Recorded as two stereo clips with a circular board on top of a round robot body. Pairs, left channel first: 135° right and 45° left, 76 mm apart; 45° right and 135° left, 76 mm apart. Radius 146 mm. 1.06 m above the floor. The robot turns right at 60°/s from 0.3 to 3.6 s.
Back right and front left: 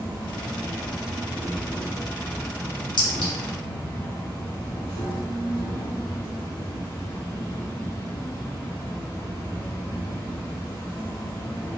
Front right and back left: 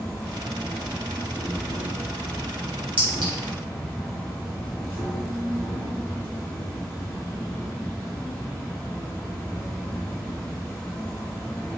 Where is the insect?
15° left, 0.7 m; by 11.8 s 145° right, 0.7 m.